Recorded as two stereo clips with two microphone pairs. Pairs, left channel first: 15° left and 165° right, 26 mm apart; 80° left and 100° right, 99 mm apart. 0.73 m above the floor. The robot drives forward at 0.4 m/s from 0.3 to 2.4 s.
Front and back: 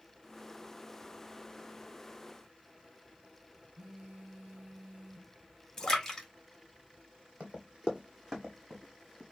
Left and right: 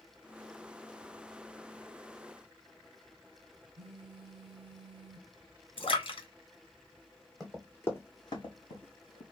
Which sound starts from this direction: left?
A splash, at 5.8 s.